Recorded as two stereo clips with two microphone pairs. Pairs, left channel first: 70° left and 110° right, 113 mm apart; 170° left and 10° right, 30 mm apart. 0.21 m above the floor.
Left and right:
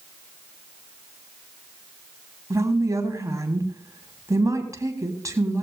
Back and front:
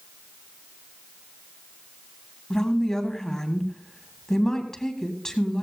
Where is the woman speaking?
135° right, 1.6 m.